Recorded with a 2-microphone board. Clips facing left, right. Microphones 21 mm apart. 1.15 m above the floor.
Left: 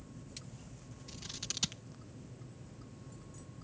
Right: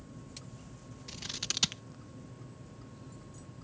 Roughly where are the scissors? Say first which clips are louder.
Right 6 dB; right.